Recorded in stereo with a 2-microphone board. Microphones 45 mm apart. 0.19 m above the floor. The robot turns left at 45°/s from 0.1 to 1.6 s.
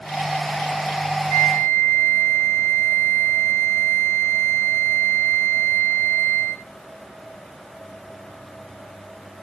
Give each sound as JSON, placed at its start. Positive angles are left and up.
{"t": 1.3, "sound": "a flute", "side_deg": 20, "distance_m": 2.0}